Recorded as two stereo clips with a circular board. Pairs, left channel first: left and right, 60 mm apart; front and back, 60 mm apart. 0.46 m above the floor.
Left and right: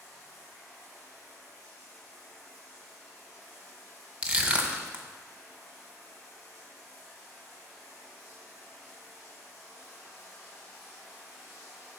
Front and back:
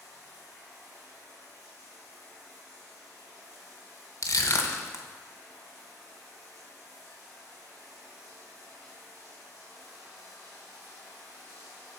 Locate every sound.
0.0 s running water: 170° right, 3.5 m
4.2 s crushing: 20° right, 0.9 m